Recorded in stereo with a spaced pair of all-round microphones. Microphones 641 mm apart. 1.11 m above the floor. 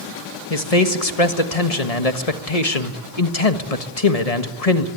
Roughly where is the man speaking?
Left.